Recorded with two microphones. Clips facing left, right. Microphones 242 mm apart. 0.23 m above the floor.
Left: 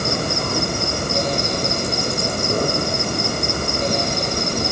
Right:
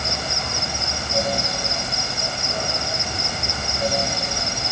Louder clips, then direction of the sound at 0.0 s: Left 8 dB; 50° left (ahead or behind).